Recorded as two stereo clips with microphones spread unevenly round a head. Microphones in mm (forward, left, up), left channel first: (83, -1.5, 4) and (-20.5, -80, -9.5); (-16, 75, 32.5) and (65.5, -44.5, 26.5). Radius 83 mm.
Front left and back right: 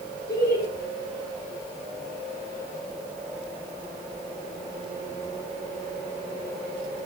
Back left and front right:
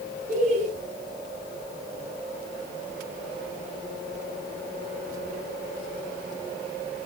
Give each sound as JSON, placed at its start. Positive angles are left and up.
{"t": 0.3, "sound": "laughter", "azimuth_deg": -20, "distance_m": 2.0}